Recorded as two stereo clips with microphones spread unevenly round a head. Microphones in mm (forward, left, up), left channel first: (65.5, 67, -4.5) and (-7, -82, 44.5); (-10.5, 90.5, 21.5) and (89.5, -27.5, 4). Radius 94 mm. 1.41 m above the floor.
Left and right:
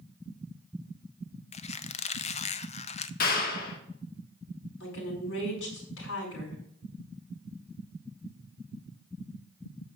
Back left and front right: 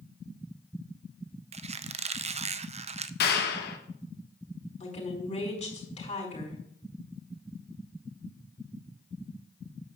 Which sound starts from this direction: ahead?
A squeak, at 1.5 s.